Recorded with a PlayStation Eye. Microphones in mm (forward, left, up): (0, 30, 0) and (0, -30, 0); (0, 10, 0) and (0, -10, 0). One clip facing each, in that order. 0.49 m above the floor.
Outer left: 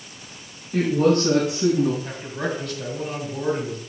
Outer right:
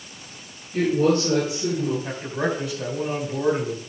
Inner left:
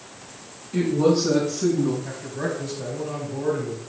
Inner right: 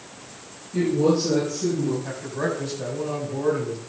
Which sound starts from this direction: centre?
A man speaking, at 2.0 s.